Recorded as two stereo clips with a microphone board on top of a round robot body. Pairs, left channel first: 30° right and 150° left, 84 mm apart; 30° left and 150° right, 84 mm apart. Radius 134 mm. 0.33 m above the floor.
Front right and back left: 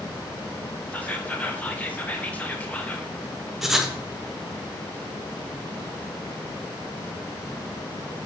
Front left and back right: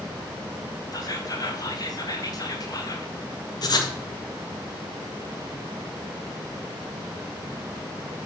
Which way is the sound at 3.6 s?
65° left.